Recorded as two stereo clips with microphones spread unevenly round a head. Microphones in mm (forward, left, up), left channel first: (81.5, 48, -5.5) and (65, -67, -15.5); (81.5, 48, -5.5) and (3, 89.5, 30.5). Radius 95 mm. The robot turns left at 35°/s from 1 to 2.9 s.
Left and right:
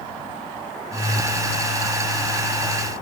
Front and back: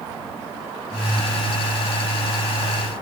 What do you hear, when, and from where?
Only background noise.